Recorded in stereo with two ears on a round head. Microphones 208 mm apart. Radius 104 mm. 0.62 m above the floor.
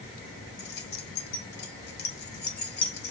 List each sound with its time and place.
0.6 s keys jangling: 45° left (ahead or behind), 1.4 m